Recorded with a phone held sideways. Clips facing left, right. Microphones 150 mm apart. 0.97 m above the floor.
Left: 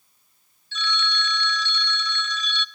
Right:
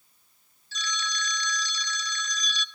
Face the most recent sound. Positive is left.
turn(degrees=-40)  # may be behind; listen again after turning